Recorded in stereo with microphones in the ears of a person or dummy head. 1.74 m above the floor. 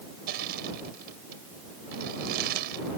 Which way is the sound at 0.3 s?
50° right (ahead or behind).